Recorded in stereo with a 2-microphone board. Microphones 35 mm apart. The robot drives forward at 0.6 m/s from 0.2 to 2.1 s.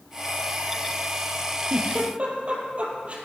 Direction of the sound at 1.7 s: 45° right (ahead or behind).